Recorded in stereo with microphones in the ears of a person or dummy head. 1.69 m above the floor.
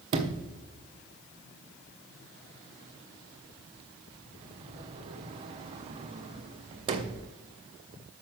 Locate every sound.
0.1 s a sliding door: 25° right (ahead or behind), 0.7 m